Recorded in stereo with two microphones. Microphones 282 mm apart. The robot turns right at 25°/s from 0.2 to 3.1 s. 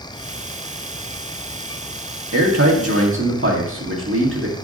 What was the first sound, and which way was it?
A man speaking, 70° right (ahead or behind).